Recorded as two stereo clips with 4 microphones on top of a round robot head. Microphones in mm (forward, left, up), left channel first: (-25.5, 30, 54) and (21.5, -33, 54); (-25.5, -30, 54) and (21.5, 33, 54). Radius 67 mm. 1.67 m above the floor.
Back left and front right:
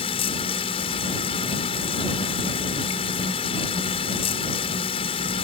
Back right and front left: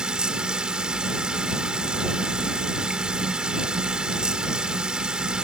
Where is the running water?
135° left.